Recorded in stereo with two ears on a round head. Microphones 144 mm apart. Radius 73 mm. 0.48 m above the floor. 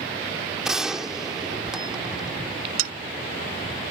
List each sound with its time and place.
0.6 s a gunshot: 5° right (ahead or behind)
2.8 s a dropped coin: 45° right (ahead or behind)